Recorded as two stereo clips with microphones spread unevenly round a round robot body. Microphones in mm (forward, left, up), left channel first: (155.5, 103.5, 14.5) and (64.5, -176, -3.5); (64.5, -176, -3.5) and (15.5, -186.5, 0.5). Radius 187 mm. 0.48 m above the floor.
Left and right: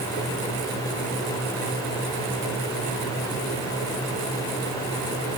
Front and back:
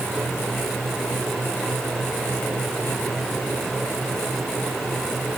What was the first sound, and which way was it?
Only background noise.